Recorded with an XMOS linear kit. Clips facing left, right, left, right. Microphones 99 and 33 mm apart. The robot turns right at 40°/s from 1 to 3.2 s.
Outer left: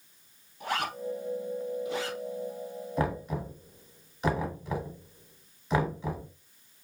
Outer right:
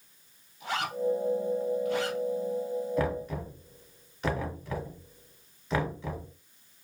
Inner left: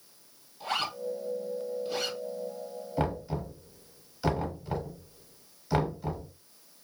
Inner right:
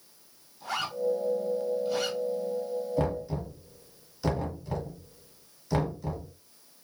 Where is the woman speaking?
No woman speaking in this recording.